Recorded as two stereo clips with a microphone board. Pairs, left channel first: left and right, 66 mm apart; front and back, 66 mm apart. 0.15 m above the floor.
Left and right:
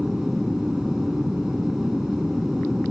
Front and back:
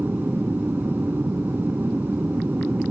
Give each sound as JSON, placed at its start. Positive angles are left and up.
{"t": 0.0, "sound": "an aircraft", "azimuth_deg": -170}